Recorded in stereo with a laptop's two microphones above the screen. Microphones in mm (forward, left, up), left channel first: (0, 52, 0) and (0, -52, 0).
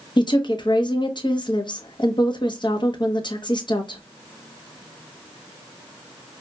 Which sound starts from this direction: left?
A woman speaking, at 0.2 s.